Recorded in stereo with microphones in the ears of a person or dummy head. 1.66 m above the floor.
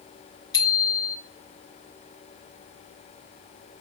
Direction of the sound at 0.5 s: 20° left (ahead or behind).